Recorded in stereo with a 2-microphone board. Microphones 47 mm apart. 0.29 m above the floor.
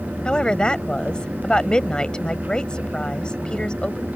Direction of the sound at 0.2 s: 20° left (ahead or behind).